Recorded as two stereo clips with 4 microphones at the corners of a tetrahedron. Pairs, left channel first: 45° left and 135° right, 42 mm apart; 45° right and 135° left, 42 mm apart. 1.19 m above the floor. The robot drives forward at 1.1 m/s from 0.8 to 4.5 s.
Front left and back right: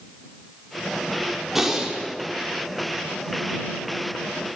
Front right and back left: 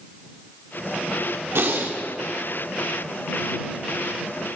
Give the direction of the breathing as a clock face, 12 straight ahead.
7 o'clock.